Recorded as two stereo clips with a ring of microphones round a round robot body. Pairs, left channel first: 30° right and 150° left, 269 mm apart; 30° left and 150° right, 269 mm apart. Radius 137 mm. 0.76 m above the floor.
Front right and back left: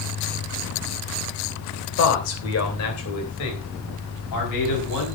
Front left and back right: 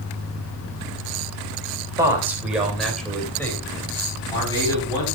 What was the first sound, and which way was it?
A man speaking, 70° right.